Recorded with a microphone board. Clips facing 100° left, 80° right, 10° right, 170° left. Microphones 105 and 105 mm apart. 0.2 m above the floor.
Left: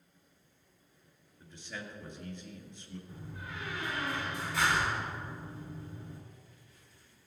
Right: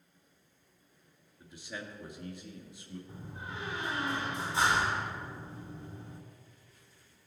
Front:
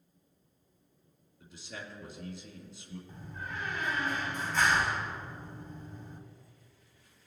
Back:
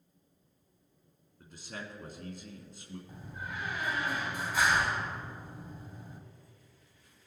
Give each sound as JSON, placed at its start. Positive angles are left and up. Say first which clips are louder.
{"t": 1.4, "sound": "a man speaking", "louder": "right 1 dB, back 1 dB", "azimuth_deg": -155, "distance_m": 2.0}
{"t": 3.1, "sound": "a door slam", "louder": "right 1 dB, front 1 dB", "azimuth_deg": -120, "distance_m": 1.3}